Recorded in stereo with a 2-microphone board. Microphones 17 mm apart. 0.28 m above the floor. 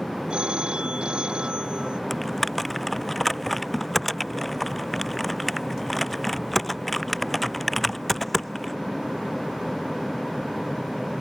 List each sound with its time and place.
0.3 s a phone ringing: 75° right (ahead or behind)
2.1 s typing on a keyboard: 10° left (ahead or behind)